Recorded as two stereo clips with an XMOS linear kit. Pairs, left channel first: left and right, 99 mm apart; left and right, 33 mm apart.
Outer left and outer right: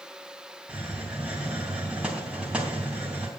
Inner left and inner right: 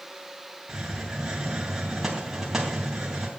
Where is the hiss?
10° right (ahead or behind), 3.5 m.